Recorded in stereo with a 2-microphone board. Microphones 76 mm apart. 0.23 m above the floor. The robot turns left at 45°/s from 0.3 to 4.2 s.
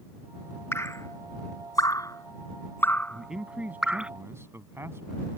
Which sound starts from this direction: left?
Dripping, at 0.7 s.